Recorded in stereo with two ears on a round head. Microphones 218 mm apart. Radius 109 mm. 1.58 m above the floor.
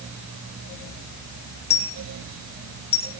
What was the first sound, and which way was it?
A dropped coin, 25° left (ahead or behind).